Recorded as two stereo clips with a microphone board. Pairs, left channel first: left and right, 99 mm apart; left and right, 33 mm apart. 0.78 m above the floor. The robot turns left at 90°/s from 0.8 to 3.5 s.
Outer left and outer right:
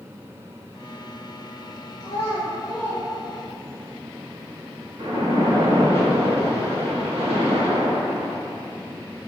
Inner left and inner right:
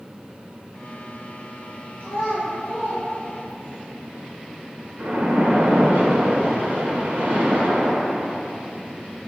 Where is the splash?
65° right (ahead or behind), 1.1 m.